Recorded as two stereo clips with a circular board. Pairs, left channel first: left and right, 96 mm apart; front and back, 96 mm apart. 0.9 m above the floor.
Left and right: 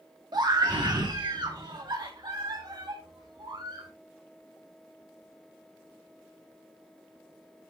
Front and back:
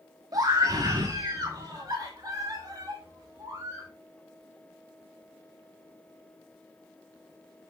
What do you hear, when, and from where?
0.3 s a scream: 130° right, 1.6 m